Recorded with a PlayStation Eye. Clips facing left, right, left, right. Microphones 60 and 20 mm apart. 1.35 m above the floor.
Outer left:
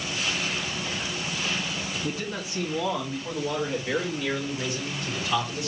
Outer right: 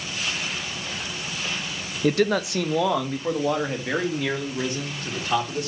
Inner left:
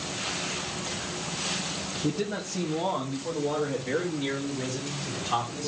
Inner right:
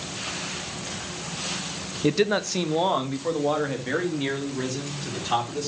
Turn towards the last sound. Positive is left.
turn(degrees=-50)  # may be behind; listen again after turning